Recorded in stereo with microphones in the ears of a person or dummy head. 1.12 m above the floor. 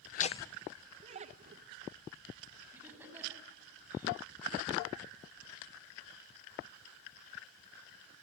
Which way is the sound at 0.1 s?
45° left (ahead or behind).